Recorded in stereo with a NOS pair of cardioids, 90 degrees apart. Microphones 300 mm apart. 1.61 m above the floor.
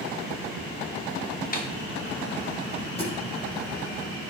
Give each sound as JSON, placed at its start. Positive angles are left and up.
{"t": 1.5, "sound": "a snare drum", "azimuth_deg": 30, "distance_m": 1.3}
{"t": 3.0, "sound": "a thud", "azimuth_deg": 20, "distance_m": 5.5}